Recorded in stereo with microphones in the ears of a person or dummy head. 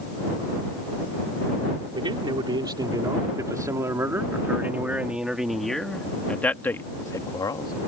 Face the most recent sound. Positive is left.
turn(degrees=25)  # may be behind; listen again after turning